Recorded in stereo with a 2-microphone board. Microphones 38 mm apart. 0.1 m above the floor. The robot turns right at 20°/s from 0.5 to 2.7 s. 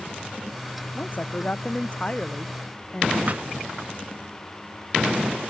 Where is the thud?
45° right (ahead or behind).